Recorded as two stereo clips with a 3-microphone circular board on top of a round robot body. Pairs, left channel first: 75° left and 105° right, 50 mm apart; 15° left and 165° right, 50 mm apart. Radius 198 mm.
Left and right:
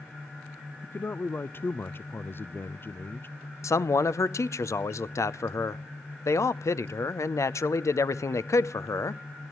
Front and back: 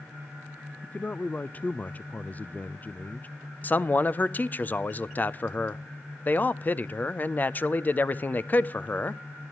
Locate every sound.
0.8 s a man speaking: 60° left, 0.6 m
3.6 s a man speaking: 70° left, 0.7 m